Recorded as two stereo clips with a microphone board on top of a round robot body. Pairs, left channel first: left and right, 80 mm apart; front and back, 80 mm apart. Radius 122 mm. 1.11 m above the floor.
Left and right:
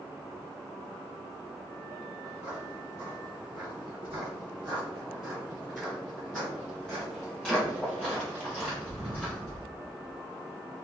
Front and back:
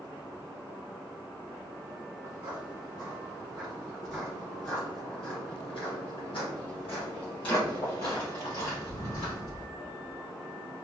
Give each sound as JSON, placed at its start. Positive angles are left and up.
{"t": 2.2, "sound": "footsteps", "azimuth_deg": -145, "distance_m": 1.7}